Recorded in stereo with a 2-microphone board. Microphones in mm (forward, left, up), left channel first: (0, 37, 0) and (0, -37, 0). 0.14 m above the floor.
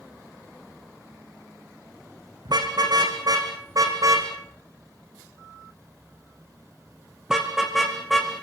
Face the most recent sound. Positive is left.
turn(degrees=5)  # may be behind; listen again after turning